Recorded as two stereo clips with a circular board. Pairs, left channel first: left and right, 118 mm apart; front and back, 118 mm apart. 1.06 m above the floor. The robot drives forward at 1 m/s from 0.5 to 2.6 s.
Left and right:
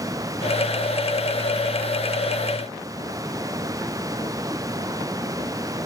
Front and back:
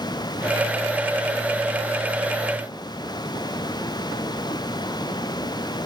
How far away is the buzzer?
No buzzer in this recording.